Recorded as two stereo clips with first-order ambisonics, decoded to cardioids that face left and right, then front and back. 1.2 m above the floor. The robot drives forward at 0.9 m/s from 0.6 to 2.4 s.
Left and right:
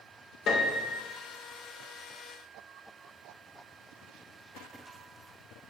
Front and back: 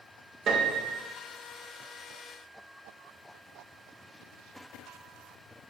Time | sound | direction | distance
0.5 | a piano | 130° left | 0.7 m